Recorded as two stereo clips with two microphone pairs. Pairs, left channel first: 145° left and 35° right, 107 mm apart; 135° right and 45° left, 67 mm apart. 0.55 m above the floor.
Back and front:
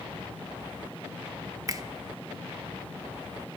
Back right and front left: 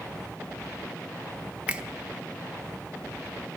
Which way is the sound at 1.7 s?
20° right.